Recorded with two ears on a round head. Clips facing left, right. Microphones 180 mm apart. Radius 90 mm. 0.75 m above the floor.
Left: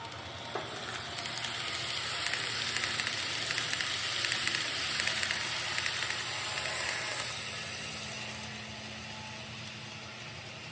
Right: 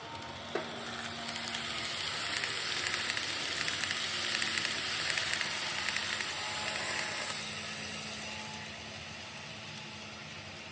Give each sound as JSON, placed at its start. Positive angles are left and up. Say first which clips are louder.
{"t": 0.6, "sound": "tapping", "louder": "right 3 dB", "side_deg": -30, "distance_m": 1.3}